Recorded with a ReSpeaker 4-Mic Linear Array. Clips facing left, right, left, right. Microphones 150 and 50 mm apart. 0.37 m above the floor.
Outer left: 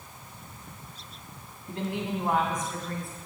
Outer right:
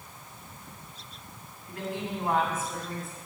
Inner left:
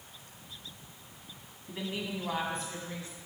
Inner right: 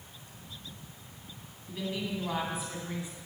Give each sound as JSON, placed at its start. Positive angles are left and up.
{"t": 1.7, "sound": "a woman speaking", "side_deg": 30, "distance_m": 2.0}